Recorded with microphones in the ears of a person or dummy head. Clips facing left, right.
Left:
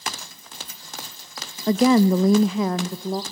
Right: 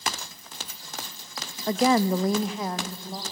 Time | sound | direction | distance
1.7 | a woman speaking | 65° left (ahead or behind) | 0.5 m